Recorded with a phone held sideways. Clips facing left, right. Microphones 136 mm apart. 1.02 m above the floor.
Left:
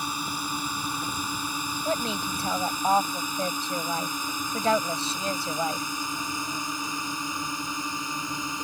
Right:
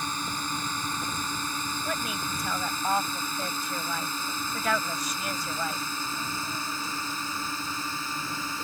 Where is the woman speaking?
30° left (ahead or behind).